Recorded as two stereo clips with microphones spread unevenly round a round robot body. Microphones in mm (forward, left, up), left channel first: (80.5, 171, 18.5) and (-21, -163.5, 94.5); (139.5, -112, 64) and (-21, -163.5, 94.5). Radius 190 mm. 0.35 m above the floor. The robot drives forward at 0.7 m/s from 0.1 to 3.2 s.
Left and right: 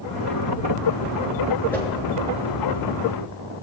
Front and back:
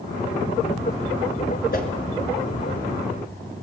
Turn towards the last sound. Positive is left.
turn(degrees=-10)